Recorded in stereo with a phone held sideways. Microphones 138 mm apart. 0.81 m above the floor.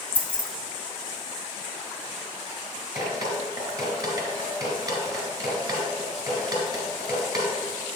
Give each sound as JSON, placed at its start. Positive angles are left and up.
{"t": 0.1, "sound": "keys jangling", "side_deg": 15, "distance_m": 0.6}
{"t": 3.0, "sound": "dripping", "side_deg": -25, "distance_m": 2.0}